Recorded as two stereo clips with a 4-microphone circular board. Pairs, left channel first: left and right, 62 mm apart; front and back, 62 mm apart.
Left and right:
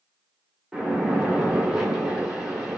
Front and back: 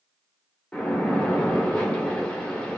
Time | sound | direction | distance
0.7 | a splash | 30° right | 1.3 m